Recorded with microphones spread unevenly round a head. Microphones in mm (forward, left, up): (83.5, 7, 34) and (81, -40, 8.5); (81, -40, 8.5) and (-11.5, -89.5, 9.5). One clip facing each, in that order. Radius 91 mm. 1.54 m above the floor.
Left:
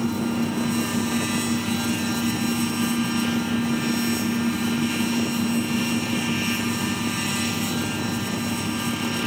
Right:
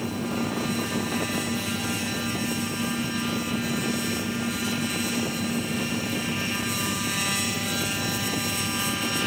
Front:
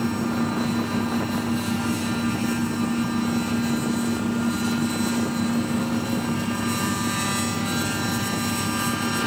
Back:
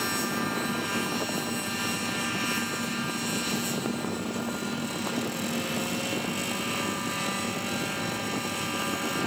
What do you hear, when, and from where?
0.0 s a fan: 90° left